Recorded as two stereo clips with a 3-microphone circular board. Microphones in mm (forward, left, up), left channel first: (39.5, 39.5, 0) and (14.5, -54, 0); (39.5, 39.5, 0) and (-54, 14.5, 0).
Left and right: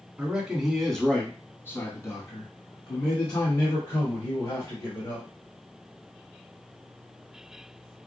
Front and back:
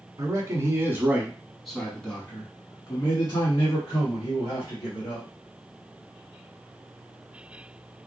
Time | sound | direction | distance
0.2 | a man speaking | 175° right | 1.2 m